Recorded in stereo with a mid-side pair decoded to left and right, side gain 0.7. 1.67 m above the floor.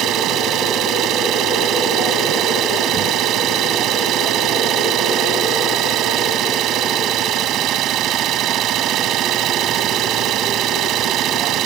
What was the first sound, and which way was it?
An engine running, 50° right.